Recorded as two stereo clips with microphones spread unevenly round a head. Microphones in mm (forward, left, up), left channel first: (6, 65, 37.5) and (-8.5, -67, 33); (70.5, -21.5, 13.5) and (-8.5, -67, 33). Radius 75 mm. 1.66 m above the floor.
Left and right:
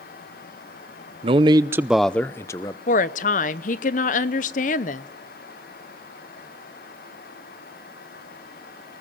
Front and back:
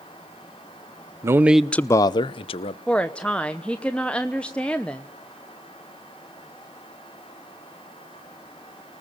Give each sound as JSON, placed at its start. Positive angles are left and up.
{"t": 1.2, "sound": "a man speaking", "azimuth_deg": -135, "distance_m": 0.6}
{"t": 2.9, "sound": "a woman speaking", "azimuth_deg": 115, "distance_m": 0.9}